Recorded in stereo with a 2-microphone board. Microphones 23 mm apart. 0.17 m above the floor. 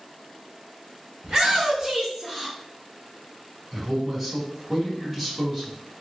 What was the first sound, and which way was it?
A shout, 40° right (ahead or behind).